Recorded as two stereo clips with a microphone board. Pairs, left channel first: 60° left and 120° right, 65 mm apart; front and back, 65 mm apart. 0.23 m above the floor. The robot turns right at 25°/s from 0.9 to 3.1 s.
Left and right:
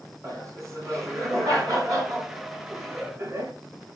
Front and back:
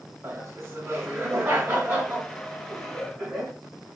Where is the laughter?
145° right, 2.5 m; by 3.5 s 90° right, 2.5 m.